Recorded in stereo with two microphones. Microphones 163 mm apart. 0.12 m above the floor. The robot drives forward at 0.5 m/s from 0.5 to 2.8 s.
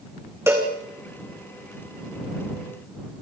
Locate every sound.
0.5 s a cowbell: 15° right (ahead or behind), 3 m